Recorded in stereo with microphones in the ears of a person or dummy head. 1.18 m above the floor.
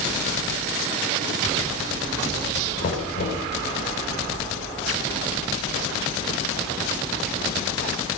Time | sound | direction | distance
2.8 | knocking | 50° left (ahead or behind) | 4.5 m